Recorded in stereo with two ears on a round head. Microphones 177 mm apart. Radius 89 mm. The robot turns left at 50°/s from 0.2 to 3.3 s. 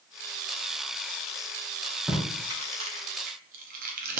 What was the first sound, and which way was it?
Tape being pulled, 5° right (ahead or behind).